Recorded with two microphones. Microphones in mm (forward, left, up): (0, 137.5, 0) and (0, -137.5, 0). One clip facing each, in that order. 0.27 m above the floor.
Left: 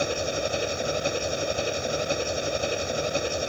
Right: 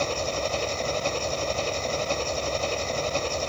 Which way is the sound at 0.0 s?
15° left (ahead or behind).